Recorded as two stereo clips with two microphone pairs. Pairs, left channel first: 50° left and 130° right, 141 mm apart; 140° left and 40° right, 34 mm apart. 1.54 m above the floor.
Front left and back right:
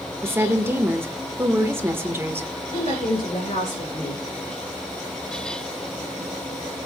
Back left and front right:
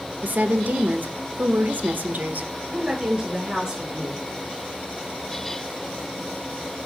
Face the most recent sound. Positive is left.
turn(degrees=10)